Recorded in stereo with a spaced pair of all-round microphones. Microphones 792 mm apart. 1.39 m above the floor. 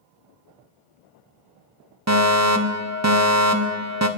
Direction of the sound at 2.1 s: 20° right (ahead or behind).